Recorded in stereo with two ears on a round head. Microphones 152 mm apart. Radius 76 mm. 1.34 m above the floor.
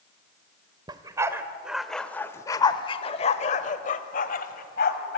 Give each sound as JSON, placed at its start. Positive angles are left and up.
{"t": 0.9, "sound": "a dog barking", "side_deg": -20, "distance_m": 1.3}